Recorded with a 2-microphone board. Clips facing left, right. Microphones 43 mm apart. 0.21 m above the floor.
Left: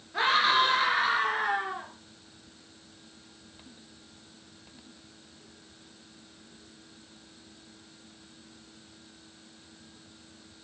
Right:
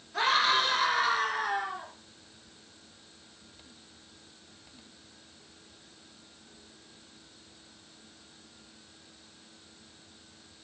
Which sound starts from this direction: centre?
A scream, at 0.1 s.